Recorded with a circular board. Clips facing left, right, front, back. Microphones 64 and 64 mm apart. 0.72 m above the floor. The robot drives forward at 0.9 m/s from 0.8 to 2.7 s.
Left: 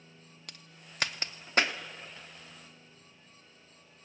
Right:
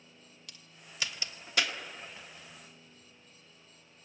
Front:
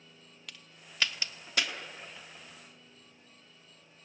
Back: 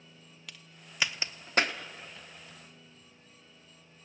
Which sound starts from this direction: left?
A crack, at 0.5 s.